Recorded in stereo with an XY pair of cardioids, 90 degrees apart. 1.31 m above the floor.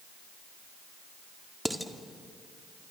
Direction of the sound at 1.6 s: 5° right.